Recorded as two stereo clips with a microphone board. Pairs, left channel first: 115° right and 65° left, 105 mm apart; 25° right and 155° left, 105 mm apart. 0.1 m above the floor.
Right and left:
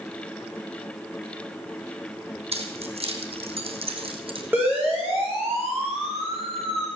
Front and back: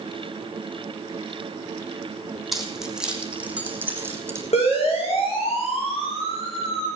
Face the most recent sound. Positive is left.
turn(degrees=5)